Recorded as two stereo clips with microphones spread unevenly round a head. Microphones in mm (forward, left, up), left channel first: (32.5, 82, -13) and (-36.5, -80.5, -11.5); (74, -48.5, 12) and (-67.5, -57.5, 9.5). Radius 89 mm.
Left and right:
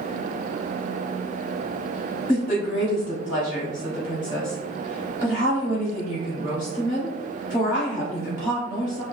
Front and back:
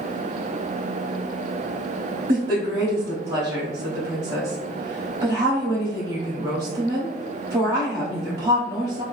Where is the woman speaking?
125° left, 0.7 m.